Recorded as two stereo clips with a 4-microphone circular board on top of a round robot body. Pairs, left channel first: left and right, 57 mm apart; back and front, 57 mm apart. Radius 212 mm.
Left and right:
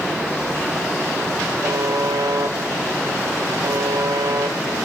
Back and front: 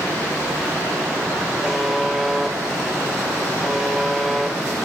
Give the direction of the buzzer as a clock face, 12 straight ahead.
3 o'clock.